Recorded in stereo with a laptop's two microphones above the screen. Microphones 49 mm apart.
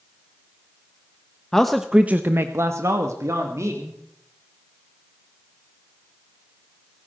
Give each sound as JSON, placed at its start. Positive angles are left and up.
{"t": 1.5, "sound": "a man speaking", "side_deg": 10, "distance_m": 0.9}